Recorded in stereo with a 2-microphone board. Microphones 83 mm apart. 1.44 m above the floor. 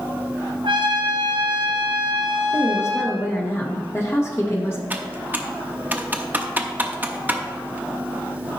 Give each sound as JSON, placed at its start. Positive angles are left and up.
{"t": 0.6, "sound": "a trumpet", "side_deg": -80, "distance_m": 1.6}
{"t": 2.5, "sound": "a woman speaking", "side_deg": 35, "distance_m": 1.9}
{"t": 4.9, "sound": "typing on a keyboard", "side_deg": -20, "distance_m": 0.8}